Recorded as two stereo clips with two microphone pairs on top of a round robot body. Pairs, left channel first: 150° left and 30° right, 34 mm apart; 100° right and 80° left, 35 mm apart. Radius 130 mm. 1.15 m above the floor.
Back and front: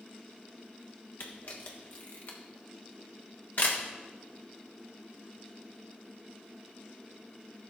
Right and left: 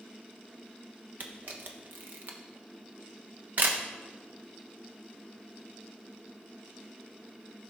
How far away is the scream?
No scream in this recording.